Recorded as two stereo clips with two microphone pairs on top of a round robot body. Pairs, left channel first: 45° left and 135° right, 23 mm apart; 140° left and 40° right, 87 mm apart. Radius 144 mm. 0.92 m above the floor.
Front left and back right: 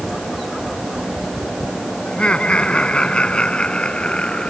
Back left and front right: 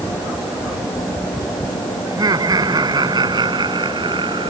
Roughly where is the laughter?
Ahead.